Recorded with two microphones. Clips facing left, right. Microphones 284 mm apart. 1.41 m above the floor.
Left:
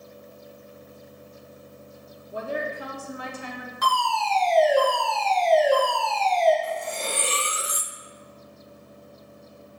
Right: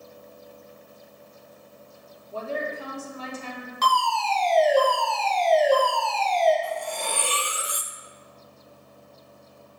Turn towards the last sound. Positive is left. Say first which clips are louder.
# left 1 dB
turn(degrees=25)  # may be behind; listen again after turning